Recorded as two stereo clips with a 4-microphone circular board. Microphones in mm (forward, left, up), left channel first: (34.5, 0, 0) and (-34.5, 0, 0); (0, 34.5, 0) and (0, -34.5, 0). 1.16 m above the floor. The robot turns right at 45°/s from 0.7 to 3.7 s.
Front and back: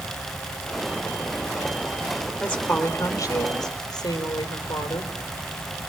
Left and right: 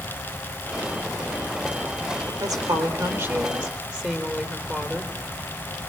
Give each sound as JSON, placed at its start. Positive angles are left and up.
{"t": 2.4, "sound": "a woman speaking", "azimuth_deg": -80, "distance_m": 3.5}